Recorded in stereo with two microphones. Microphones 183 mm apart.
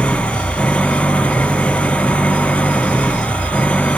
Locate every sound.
0.0 s an engine running: 5° left (ahead or behind)